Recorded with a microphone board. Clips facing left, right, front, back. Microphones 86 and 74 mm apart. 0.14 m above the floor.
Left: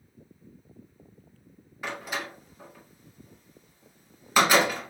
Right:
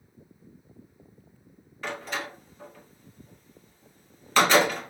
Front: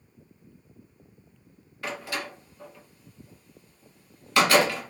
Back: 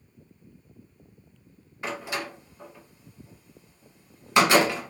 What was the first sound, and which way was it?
A door slam, 150° left.